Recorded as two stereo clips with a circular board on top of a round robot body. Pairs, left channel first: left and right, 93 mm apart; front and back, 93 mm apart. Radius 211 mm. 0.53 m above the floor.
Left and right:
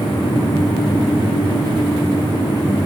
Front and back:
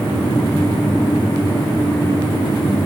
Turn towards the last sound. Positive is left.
No sound to turn to.